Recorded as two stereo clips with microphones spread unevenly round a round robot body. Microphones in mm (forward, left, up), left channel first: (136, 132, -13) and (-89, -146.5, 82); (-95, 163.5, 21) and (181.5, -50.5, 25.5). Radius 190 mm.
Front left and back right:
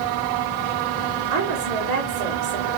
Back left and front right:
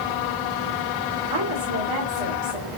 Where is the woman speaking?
80° right, 3 m.